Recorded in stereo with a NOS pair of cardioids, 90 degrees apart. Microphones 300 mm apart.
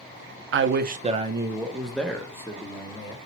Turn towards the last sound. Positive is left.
turn(degrees=15)